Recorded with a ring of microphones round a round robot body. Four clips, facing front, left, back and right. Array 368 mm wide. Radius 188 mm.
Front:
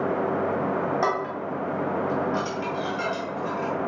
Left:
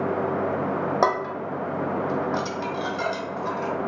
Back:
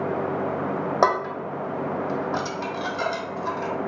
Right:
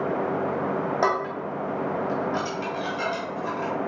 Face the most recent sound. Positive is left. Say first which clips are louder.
# left 2 dB, back 4 dB
turn(degrees=150)